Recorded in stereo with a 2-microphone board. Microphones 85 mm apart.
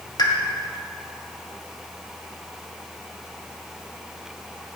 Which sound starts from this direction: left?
A pop, at 0.2 s.